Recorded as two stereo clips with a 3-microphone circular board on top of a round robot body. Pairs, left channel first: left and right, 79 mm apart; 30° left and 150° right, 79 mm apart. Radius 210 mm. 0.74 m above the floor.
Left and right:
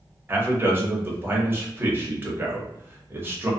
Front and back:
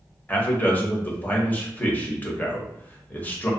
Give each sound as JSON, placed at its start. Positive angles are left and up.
{"t": 0.3, "sound": "a man speaking", "azimuth_deg": -35, "distance_m": 0.9}